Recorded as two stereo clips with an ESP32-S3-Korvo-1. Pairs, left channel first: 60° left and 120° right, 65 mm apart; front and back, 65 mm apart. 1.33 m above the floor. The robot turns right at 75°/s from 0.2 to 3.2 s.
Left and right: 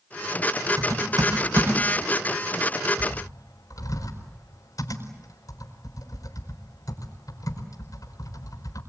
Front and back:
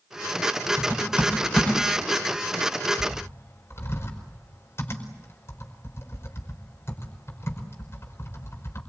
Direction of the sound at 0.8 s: 140° right.